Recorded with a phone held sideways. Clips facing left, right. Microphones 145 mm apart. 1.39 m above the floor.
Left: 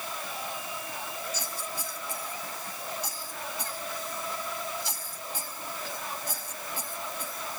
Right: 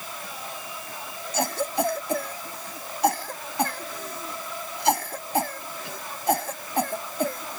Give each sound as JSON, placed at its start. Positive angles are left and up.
{"t": 1.3, "sound": "a cough", "side_deg": -65}